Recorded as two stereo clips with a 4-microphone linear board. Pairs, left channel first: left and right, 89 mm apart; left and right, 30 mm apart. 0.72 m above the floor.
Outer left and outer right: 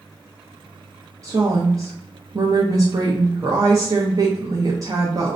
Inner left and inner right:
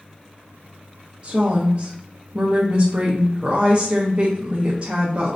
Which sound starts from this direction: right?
A woman speaking, at 1.2 s.